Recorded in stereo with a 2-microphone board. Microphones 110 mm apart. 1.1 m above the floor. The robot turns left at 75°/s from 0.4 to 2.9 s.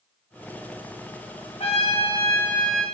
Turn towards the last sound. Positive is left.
turn(degrees=-10)